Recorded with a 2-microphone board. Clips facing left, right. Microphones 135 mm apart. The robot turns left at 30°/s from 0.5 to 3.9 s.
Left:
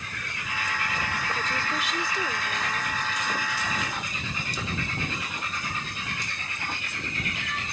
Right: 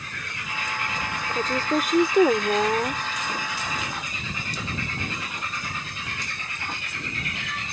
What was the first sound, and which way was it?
A woman speaking, 35° right.